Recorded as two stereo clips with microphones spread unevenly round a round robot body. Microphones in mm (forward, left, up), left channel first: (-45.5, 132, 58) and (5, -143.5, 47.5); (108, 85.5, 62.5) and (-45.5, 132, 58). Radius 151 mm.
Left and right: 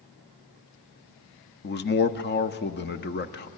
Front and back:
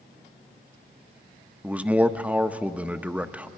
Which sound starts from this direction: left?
A man speaking, at 1.6 s.